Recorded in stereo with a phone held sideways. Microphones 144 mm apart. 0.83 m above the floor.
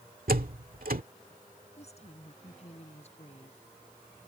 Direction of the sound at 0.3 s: 80° right.